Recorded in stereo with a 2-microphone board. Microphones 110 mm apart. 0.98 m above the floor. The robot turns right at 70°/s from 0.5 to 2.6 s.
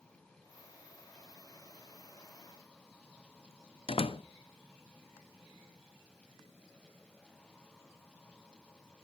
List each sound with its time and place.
3.9 s a door slam: 55° left (ahead or behind), 0.7 m